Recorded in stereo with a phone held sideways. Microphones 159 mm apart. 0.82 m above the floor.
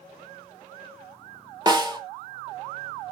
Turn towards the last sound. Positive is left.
turn(degrees=-25)  # may be behind; listen again after turning